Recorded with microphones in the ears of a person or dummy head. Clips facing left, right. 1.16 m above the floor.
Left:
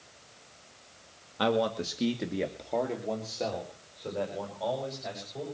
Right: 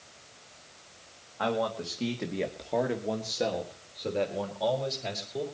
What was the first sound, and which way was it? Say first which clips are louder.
A man speaking: left 2 dB; 45° left (ahead or behind).